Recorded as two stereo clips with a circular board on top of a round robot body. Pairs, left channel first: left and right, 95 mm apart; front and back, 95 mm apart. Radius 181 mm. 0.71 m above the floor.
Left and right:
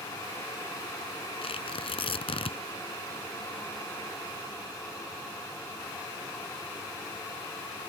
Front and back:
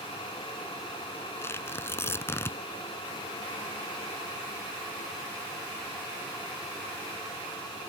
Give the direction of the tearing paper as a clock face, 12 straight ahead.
10 o'clock.